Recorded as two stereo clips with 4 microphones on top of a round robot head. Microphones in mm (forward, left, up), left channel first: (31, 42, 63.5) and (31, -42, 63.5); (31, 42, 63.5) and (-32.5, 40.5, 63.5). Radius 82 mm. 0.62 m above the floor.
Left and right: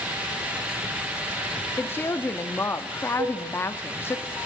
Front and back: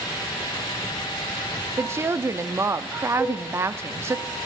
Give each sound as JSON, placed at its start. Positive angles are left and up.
{"t": 1.8, "sound": "a woman speaking", "azimuth_deg": 145, "distance_m": 0.9}
{"t": 3.2, "sound": "a cowbell", "azimuth_deg": -95, "distance_m": 3.0}